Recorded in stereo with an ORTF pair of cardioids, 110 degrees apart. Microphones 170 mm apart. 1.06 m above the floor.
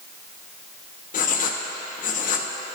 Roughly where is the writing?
Ahead left.